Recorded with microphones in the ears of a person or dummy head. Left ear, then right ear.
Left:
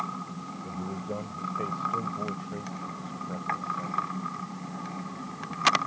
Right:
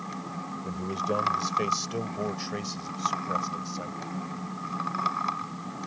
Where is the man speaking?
85° right; by 4.1 s 70° right (ahead or behind).